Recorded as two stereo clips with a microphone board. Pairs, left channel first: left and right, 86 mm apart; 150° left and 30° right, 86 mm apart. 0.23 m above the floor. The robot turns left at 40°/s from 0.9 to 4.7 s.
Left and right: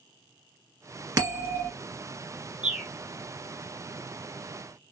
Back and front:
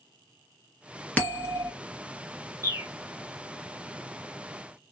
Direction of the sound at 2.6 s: 25° right.